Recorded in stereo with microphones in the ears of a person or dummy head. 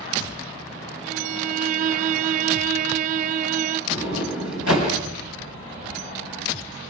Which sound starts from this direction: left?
A sliding door, at 3.9 s.